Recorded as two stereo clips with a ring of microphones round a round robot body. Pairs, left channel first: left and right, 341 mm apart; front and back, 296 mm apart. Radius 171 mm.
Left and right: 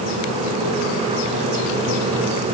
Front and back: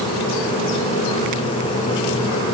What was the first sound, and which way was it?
Only background noise.